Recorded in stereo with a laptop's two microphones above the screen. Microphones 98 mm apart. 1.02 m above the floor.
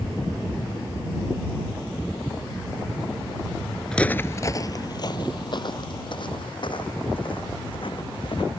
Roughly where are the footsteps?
Centre.